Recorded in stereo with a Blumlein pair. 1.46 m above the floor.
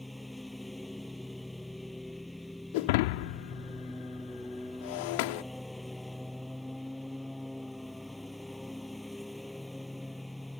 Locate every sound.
0.0 s a lawn mower: 5° left
2.7 s breaking glass: 50° left